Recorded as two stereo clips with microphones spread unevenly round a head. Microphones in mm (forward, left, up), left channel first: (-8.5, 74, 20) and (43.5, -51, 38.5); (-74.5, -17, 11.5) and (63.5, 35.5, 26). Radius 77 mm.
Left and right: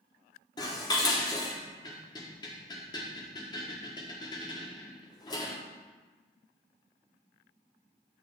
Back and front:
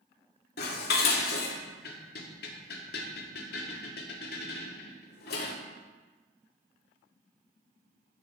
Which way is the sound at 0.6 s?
Straight behind.